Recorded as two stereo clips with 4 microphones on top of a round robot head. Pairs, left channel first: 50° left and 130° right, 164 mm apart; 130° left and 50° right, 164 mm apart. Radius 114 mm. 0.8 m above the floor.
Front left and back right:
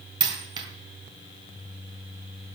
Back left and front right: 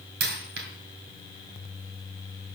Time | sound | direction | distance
0.2 | a dropped coin | 65° right | 1.8 m